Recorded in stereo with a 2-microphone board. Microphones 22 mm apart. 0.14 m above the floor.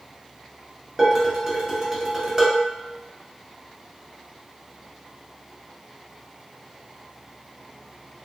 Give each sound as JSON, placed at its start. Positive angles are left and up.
{"t": 1.0, "sound": "dishes clattering", "side_deg": -20, "distance_m": 1.2}